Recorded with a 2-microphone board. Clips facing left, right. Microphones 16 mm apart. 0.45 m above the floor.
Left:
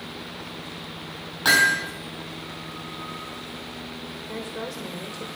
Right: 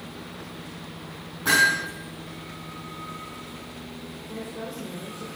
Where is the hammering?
65° left (ahead or behind), 5 m.